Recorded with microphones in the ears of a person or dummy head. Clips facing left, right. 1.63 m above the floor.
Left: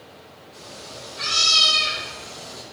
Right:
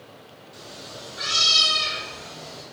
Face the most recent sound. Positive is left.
turn(degrees=5)  # may be behind; listen again after turning